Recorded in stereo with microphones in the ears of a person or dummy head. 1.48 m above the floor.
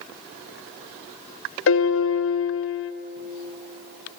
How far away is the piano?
About 0.7 m.